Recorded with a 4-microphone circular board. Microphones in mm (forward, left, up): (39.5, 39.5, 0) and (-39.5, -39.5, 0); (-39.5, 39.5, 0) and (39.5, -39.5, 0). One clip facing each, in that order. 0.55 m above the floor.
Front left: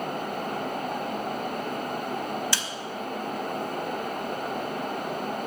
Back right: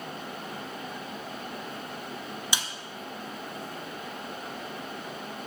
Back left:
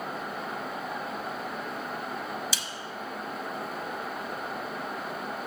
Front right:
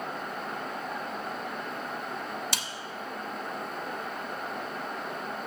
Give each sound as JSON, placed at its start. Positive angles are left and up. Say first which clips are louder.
{"t": 2.5, "sound": "a snare drum", "louder": "front left 1 dB, front right 1 dB", "azimuth_deg": -65, "distance_m": 0.6}